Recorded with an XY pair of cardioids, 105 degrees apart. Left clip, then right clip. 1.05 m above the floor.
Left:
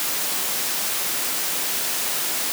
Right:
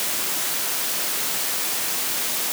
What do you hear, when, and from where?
Only background noise.